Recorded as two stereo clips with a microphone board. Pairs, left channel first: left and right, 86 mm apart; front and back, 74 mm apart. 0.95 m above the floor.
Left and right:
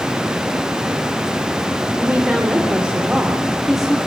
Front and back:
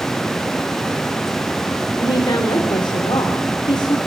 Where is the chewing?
No chewing in this recording.